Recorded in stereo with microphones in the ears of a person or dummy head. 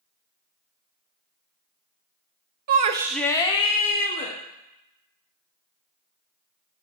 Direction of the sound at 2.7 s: 55° right (ahead or behind).